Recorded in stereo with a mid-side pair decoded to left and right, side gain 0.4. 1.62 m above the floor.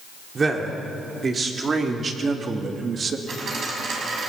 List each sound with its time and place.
0.3 s a man speaking: 35° right, 4 m; by 3.2 s 50° right, 2 m
3.3 s a dropped coin: 60° right, 6 m